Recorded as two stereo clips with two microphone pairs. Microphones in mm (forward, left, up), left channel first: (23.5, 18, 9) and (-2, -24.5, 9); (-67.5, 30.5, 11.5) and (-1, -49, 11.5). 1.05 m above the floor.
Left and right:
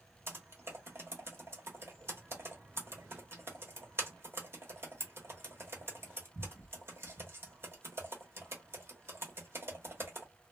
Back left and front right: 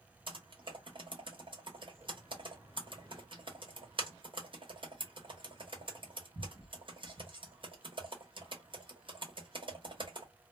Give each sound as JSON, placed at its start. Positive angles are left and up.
{"t": 0.3, "sound": "typing on a keyboard", "azimuth_deg": -85, "distance_m": 1.0}